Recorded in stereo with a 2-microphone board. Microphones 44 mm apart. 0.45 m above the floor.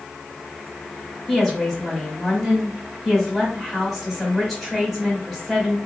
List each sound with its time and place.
1.3 s a woman speaking: centre (ahead or behind), 1.8 m